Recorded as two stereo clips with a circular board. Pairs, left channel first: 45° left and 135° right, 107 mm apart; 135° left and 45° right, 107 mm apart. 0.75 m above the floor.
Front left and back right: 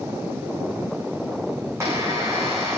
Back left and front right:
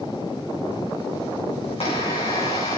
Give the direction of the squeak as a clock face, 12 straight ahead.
7 o'clock.